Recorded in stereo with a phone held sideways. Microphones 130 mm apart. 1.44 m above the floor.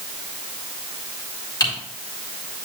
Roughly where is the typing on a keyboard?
Left.